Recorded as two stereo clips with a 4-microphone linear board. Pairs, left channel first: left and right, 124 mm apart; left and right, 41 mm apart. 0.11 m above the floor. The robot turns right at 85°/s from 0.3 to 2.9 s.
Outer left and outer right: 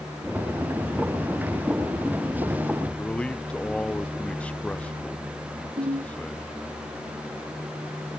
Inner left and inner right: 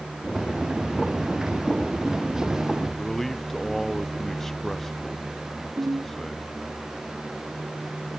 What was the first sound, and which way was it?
A man speaking, 10° left (ahead or behind).